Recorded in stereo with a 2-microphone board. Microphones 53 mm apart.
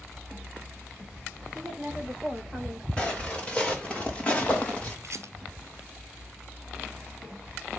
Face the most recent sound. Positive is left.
turn(degrees=-65)  # may be behind; listen again after turning